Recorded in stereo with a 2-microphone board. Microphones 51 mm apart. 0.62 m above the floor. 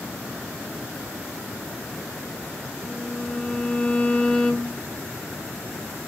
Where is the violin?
20° left (ahead or behind), 0.6 m.